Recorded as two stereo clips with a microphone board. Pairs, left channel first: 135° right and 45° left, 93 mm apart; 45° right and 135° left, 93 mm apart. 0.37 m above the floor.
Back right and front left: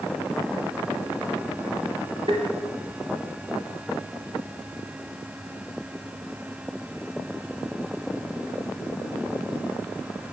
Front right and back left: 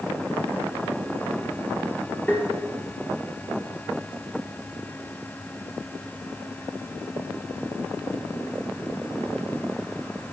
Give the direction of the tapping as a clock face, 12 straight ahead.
11 o'clock.